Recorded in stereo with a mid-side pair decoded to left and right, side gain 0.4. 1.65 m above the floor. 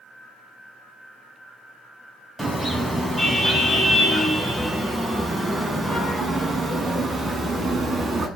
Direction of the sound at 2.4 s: Straight ahead.